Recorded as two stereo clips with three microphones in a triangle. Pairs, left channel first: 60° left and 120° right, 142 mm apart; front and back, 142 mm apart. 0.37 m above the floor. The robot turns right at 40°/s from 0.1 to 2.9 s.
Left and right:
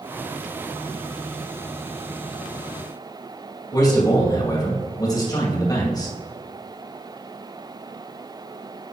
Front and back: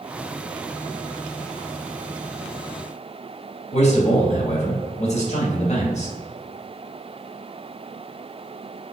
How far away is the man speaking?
About 2 m.